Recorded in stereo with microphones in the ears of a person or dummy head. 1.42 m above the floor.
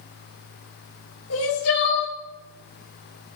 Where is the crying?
85° left, 2.5 m.